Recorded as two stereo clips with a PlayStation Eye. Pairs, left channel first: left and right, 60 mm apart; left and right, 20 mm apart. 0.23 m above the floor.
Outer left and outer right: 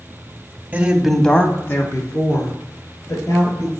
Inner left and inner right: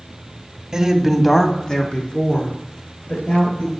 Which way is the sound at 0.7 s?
25° right (ahead or behind).